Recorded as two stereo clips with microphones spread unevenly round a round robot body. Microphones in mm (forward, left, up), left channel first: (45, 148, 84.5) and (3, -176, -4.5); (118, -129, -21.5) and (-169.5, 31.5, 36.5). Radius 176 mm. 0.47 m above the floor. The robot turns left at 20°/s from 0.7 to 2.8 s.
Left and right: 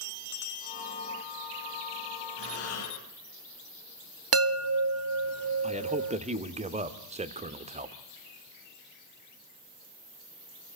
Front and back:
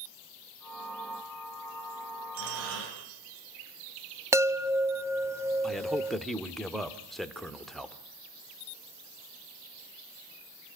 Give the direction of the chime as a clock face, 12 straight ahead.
4 o'clock.